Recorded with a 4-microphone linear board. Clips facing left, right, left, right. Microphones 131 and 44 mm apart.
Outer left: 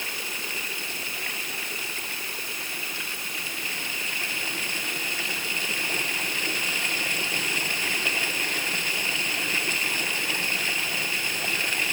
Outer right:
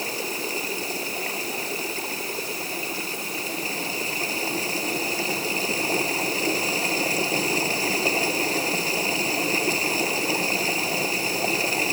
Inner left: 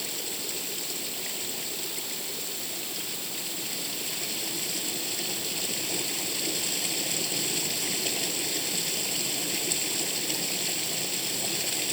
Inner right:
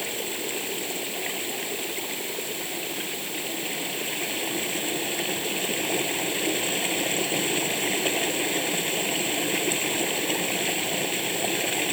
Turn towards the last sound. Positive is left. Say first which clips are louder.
# outer right 8 dB, inner right 6 dB
turn(degrees=-35)  # may be behind; listen again after turning